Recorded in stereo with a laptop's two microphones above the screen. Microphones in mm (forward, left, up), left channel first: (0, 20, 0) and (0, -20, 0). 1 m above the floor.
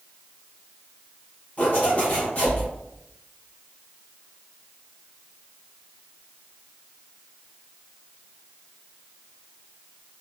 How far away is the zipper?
About 0.9 m.